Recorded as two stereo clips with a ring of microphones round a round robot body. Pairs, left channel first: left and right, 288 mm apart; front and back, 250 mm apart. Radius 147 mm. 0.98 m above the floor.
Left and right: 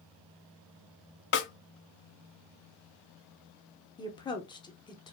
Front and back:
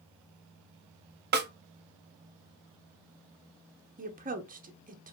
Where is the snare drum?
135° left, 0.7 m.